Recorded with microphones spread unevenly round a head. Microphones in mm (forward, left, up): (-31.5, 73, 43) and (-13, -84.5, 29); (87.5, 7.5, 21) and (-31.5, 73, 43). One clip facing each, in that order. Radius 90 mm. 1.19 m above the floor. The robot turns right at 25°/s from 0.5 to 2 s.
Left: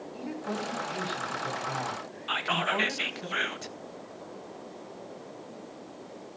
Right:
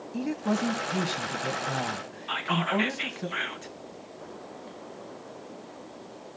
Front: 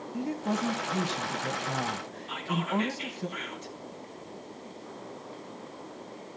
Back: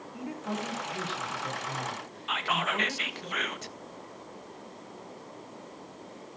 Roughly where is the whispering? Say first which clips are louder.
Right 3 dB, even; behind left.